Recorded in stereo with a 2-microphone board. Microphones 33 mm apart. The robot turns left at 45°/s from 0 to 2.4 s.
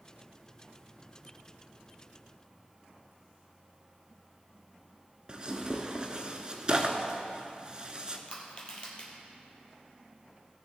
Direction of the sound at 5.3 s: 30° right (ahead or behind).